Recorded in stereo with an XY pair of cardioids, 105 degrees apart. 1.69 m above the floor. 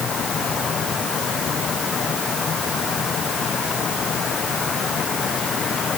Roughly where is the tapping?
I don't hear tapping.